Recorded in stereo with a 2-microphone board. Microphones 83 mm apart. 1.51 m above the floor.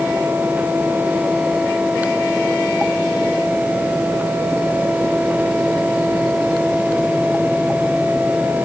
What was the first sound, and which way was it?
Only background noise.